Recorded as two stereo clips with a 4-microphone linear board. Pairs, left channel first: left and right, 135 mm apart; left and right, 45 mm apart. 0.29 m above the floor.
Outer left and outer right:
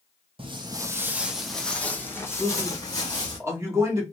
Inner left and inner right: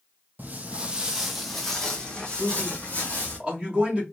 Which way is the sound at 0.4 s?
40° right (ahead or behind).